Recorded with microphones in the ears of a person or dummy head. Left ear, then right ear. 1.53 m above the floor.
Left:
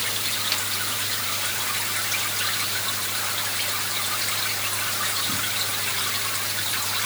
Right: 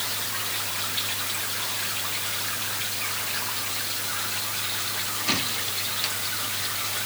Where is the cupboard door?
No cupboard door in this recording.